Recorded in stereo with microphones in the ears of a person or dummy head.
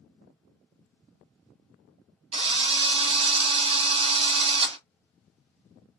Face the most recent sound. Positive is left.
turn(degrees=-35)  # may be behind; listen again after turning